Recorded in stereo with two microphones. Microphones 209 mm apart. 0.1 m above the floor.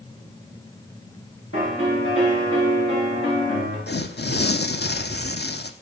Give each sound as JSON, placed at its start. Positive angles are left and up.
{"t": 1.5, "sound": "a piano", "side_deg": 85, "distance_m": 7.5}
{"t": 3.9, "sound": "tearing paper", "side_deg": 60, "distance_m": 0.8}